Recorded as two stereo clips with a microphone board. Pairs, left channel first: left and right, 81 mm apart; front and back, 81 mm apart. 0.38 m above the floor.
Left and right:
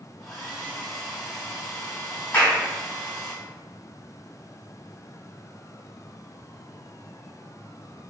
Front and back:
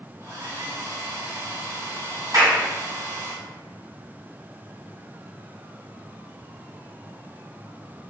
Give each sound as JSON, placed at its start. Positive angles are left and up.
{"t": 0.2, "sound": "a hair dryer", "azimuth_deg": 175, "distance_m": 1.8}
{"t": 2.3, "sound": "a clap", "azimuth_deg": 155, "distance_m": 1.9}